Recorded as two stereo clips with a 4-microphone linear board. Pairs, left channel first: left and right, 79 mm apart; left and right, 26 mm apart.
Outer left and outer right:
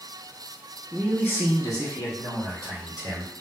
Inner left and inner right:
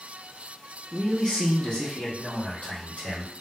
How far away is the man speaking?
About 0.8 m.